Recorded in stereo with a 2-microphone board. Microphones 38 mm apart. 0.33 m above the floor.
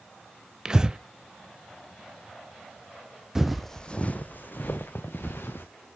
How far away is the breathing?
About 0.6 m.